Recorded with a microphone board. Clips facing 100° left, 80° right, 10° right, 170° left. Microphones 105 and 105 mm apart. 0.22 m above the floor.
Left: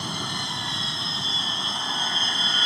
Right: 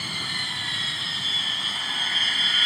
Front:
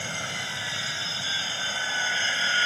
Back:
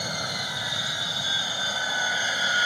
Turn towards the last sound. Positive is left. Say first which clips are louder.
# left 4 dB, back 2 dB
turn(degrees=115)